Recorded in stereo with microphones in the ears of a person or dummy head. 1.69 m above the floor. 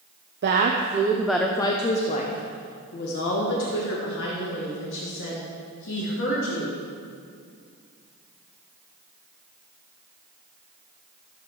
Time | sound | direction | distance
0.4 | a woman speaking | 50° right (ahead or behind) | 0.7 m